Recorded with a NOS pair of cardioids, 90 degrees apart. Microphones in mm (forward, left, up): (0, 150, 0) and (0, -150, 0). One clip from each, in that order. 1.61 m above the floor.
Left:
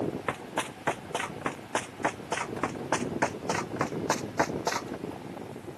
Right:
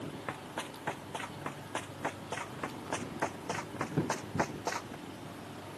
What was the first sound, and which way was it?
Running footsteps, 65° left.